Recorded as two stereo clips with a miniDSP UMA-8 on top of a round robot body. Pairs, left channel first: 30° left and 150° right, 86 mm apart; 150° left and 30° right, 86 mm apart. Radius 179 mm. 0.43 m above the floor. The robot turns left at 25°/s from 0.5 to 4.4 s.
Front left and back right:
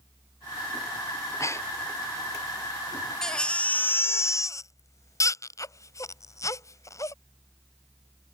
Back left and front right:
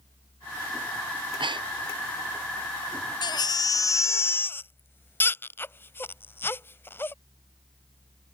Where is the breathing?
15° right; by 1.9 s 35° right.